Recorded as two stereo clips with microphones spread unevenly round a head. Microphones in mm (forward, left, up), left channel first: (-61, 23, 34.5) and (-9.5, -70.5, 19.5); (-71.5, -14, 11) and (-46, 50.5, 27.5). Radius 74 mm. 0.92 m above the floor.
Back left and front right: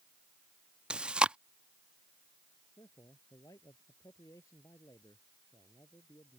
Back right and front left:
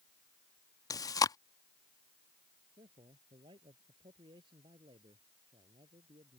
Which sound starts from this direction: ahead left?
A man speaking, at 2.8 s.